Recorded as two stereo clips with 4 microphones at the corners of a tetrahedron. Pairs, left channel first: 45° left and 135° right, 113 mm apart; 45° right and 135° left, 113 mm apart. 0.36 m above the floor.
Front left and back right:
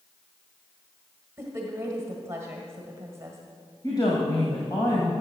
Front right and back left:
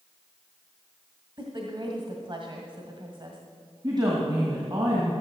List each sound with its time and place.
1.4 s a woman speaking: 165° left, 1.6 m
3.8 s a woman speaking: 95° left, 2.5 m